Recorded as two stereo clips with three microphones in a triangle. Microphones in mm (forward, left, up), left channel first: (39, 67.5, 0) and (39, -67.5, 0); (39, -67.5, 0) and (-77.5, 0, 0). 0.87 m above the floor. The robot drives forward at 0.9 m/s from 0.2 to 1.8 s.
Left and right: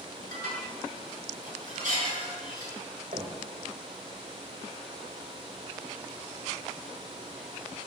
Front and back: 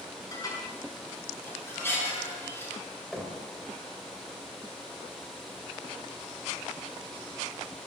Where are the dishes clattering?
90° right, 6.5 m; by 2.7 s 105° right, 6.5 m.